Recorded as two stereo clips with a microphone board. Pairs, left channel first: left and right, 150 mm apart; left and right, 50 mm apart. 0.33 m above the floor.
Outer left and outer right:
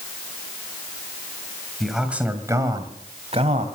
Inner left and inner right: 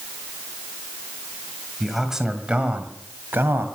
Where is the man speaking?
Centre (ahead or behind), 1.9 m; by 3.7 s 50° right (ahead or behind), 2.0 m.